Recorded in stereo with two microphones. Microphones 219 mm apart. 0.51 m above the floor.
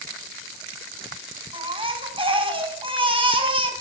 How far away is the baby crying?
About 3.5 m.